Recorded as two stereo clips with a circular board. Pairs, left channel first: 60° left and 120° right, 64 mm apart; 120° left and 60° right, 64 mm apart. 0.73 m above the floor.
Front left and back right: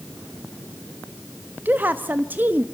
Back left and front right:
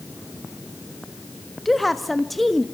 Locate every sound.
1.6 s a woman speaking: 155° right, 1.0 m